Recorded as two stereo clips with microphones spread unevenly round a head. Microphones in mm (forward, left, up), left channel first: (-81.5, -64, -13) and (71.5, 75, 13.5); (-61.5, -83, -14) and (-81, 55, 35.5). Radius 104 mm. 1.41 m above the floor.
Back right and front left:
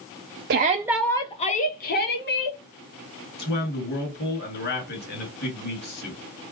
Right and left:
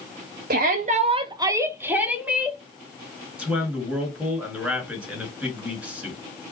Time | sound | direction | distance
0.5 | a shout | 80° left | 0.5 m
3.4 | a man speaking | straight behind | 2.5 m